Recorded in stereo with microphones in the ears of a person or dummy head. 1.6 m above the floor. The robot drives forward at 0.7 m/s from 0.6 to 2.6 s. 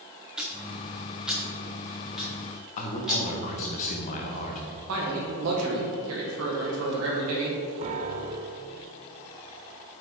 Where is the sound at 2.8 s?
40° left (ahead or behind), 0.9 m.